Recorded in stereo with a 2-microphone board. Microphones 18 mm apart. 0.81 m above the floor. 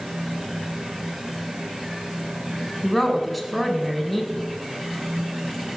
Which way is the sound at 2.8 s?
10° right (ahead or behind).